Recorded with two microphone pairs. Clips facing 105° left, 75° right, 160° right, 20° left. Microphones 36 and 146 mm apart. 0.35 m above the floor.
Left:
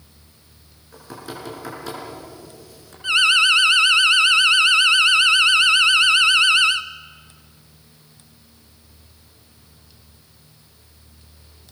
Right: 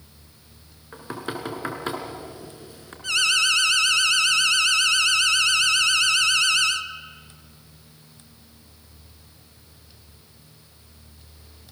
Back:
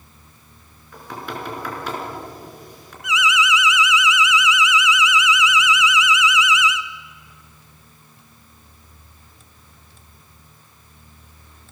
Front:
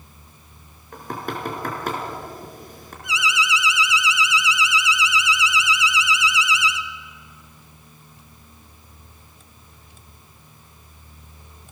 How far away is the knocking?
About 3.5 m.